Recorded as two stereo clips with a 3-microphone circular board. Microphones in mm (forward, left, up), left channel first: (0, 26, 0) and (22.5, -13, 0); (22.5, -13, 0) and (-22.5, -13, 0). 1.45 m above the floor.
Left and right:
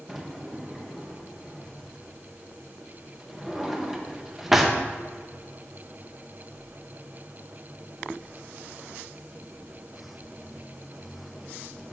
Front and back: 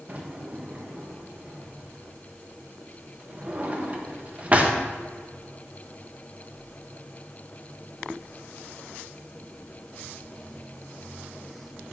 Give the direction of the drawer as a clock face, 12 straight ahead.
5 o'clock.